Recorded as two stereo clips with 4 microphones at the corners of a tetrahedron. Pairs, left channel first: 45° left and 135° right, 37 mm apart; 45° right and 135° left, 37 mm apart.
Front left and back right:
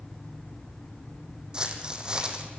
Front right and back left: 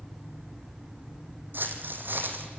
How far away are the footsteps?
About 2.5 m.